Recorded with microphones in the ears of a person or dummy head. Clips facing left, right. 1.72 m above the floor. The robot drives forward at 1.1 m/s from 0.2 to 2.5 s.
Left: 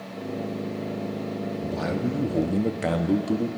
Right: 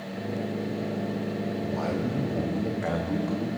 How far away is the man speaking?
About 1.1 m.